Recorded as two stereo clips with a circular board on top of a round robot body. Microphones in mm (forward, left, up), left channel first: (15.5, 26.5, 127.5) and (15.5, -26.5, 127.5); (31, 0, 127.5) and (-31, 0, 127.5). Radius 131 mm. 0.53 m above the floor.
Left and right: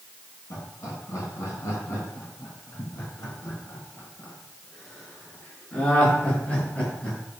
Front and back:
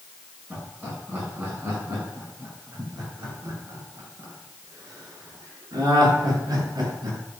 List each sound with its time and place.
0.5 s laughter: 115° left, 6.5 m; by 7.2 s 155° left, 7 m